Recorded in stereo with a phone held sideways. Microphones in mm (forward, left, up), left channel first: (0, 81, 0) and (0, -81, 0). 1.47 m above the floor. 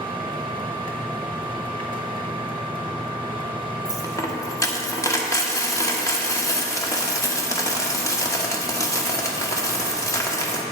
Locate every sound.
0.0 s a machine running: 30° right (ahead or behind), 1.4 m
3.9 s a dropped coin: 20° left (ahead or behind), 1.1 m